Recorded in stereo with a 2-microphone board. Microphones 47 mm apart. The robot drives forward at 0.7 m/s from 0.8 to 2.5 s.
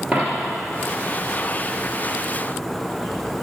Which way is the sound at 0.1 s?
35° right (ahead or behind).